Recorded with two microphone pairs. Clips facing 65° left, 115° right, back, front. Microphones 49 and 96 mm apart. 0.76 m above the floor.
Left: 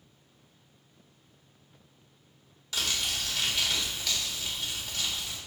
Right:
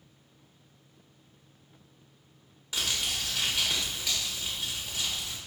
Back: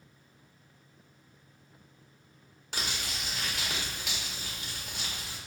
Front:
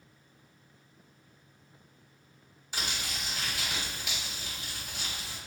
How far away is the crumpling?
About 1.7 m.